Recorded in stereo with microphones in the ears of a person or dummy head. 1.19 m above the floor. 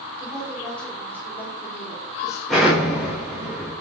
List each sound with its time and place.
0.2 s a woman speaking: 5° left (ahead or behind), 4 m; by 3.5 s 30° left (ahead or behind), 2.5 m
2.5 s an explosion: centre (ahead or behind), 4.5 m